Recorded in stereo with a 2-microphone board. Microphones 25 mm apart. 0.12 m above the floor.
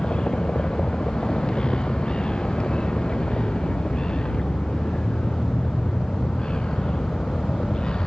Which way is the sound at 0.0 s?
40° left (ahead or behind).